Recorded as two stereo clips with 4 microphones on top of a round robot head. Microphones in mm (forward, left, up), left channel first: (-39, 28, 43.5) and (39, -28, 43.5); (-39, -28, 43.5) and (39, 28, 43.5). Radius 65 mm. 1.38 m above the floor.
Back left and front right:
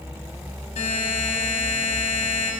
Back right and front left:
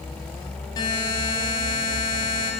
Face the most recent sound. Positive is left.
turn(degrees=165)